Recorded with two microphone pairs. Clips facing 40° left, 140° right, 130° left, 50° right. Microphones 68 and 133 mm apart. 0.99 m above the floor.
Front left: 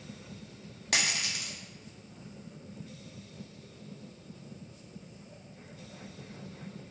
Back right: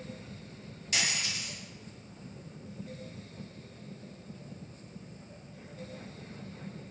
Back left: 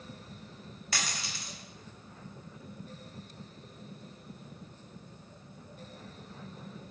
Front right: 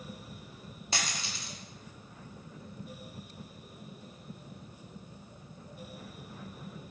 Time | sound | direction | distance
0.9 | a dropped coin | 15° left | 0.8 m